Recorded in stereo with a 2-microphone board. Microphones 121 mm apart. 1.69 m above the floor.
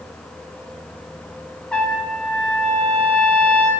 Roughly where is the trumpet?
Centre.